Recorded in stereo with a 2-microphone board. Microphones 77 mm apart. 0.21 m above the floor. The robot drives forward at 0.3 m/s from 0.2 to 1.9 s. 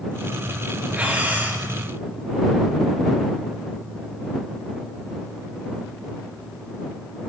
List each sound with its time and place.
0.9 s breathing: 25° right (ahead or behind), 4 m